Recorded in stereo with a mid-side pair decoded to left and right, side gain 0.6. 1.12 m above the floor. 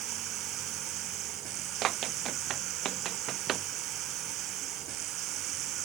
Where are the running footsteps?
55° right.